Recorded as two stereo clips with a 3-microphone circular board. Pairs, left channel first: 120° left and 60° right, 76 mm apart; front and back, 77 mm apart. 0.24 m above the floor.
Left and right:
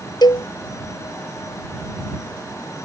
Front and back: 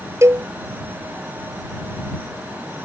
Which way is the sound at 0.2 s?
130° left.